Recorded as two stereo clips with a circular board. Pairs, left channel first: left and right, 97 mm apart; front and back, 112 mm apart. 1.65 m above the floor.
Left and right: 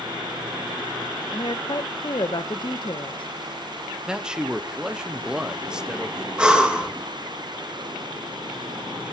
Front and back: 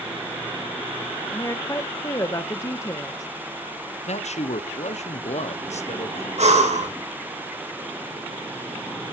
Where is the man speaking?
10° right, 1.2 m.